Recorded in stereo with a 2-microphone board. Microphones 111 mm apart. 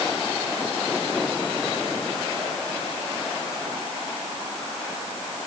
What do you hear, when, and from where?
Only background noise.